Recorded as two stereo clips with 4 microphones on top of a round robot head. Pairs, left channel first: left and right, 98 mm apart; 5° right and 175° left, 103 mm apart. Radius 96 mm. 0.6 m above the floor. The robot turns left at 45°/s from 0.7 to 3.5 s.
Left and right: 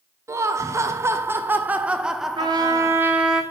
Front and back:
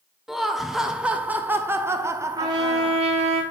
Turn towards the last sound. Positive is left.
turn(degrees=180)